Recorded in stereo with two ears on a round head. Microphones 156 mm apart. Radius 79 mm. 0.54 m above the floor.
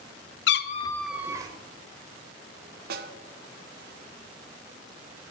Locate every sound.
0.5 s a cat meowing: 70° left (ahead or behind), 0.6 m; by 1.5 s 20° right (ahead or behind), 1.1 m
2.9 s a snare drum: 60° right (ahead or behind), 0.8 m